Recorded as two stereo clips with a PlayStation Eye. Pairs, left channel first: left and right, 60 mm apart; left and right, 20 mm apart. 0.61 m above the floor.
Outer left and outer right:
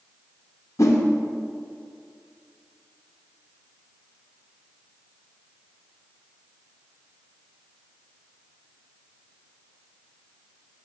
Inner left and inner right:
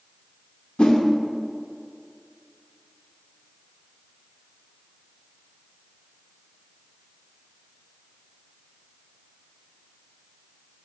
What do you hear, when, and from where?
0.8 s a whoosh: 60° left (ahead or behind), 1.0 m